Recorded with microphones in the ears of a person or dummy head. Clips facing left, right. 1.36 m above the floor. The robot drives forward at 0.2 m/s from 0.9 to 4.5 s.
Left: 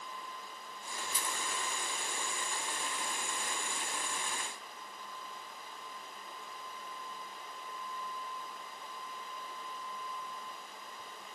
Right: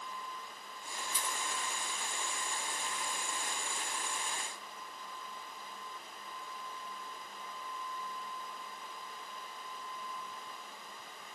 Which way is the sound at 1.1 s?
65° left (ahead or behind).